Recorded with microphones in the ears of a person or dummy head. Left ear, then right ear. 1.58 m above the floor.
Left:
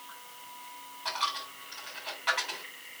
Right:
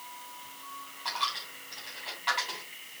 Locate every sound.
1.1 s a dropped coin: 5° left (ahead or behind), 3.5 m